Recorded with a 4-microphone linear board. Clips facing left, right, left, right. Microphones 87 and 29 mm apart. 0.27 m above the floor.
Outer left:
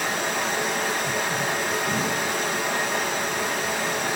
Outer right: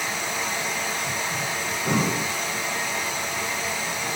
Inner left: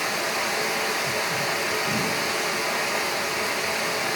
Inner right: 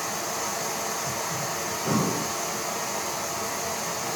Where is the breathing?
70° right (ahead or behind), 2.5 m.